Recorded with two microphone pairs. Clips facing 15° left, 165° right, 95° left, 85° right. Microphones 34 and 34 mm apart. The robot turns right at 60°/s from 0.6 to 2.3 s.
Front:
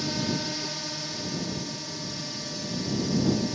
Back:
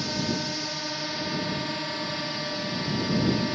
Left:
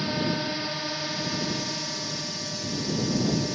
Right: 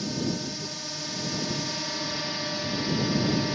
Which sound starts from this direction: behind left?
A drone, at 0.0 s.